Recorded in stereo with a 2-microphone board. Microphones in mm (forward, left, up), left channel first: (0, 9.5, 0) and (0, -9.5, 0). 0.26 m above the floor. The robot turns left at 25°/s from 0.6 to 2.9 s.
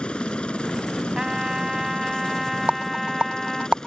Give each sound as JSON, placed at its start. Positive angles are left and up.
{"t": 0.0, "sound": "a helicopter", "azimuth_deg": 105}
{"t": 1.1, "sound": "a trumpet", "azimuth_deg": -135}
{"t": 2.7, "sound": "a rattle", "side_deg": -85}